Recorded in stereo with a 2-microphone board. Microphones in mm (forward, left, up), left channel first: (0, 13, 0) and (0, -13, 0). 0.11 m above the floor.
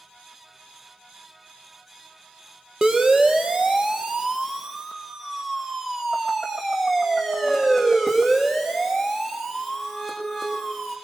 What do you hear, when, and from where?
2.8 s a siren: 25° right (ahead or behind), 2.5 m; by 10.9 s 5° right (ahead or behind), 7.5 m